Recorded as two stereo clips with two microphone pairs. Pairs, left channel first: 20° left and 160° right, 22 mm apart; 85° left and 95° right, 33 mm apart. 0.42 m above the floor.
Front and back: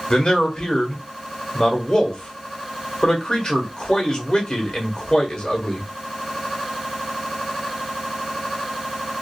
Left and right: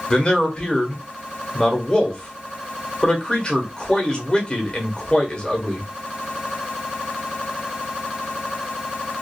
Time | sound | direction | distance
0.1 | a man speaking | 35° left | 1.1 m